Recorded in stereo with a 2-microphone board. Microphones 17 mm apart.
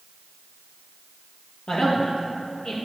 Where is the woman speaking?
65° left (ahead or behind), 3.5 m.